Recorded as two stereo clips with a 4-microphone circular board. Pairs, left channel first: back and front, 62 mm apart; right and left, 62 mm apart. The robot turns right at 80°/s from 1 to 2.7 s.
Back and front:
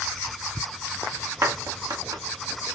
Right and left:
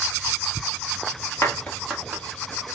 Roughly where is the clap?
Ahead right.